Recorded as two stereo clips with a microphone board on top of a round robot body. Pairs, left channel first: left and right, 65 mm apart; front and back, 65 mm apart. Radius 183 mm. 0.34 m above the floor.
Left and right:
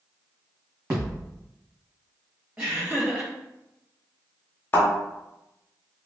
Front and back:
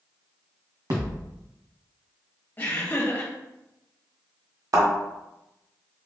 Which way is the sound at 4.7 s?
150° left.